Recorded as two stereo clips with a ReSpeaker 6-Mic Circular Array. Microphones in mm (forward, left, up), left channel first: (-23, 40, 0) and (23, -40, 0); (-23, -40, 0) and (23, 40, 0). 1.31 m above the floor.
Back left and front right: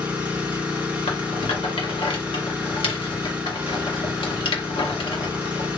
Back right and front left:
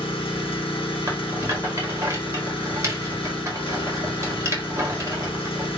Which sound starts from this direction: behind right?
An engine running, at 0.0 s.